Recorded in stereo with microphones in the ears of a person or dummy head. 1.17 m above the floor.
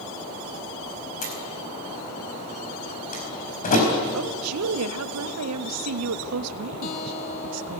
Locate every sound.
1.2 s a door slam: 45° left (ahead or behind), 4.5 m
4.1 s a woman speaking: 85° right, 1.2 m
6.8 s a guitar: 40° left (ahead or behind), 1.7 m